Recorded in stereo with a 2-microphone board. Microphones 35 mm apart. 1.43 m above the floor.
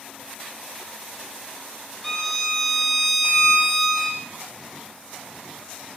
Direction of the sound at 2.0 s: 5° left (ahead or behind).